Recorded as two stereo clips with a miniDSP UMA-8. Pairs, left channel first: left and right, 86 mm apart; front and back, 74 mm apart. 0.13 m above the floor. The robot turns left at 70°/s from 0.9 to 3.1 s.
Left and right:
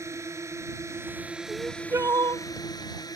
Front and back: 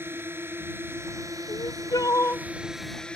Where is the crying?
Straight ahead; by 2.5 s 70° right.